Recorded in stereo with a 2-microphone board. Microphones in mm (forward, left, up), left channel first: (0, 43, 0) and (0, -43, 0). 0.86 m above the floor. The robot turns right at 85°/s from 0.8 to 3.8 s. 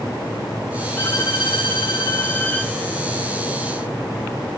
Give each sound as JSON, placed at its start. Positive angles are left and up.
{"t": 1.0, "sound": "a violin", "azimuth_deg": 20, "distance_m": 3.0}